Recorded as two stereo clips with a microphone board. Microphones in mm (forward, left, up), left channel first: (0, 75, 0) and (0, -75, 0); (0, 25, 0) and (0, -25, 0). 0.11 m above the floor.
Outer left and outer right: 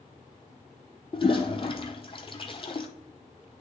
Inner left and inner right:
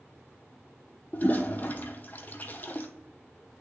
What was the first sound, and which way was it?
A toilet flushing, 35° left (ahead or behind).